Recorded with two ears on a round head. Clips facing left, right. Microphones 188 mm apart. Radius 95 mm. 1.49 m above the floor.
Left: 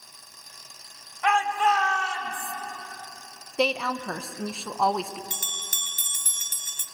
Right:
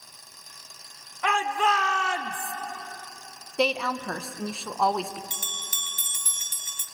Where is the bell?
40° left (ahead or behind), 0.7 m.